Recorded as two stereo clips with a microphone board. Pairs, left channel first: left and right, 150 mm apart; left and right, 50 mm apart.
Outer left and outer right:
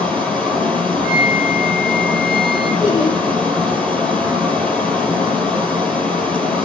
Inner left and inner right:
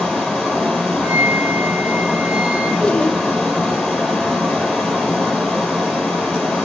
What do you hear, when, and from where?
0.0 s running water: 5° left (ahead or behind), 6 m
1.0 s a flute: 35° right (ahead or behind), 1.6 m
2.8 s laughter: 25° left (ahead or behind), 1.1 m